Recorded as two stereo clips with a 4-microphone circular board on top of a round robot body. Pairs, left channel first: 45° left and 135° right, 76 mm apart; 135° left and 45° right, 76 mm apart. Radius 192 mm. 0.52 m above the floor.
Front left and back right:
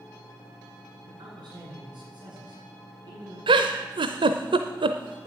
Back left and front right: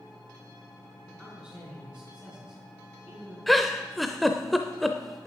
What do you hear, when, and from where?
1.1 s a man speaking: 120° right, 8 m
3.5 s a giggle: 135° right, 0.6 m